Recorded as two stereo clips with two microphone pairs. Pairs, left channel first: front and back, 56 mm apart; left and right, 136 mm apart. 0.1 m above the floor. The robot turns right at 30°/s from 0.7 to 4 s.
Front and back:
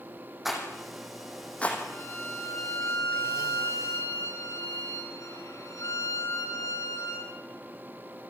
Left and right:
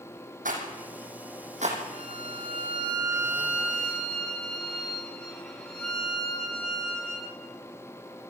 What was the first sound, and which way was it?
A rattle, 95° right.